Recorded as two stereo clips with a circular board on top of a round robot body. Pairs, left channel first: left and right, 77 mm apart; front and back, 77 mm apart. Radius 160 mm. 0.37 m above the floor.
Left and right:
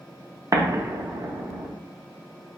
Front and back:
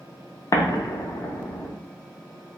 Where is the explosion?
40° right, 0.7 m.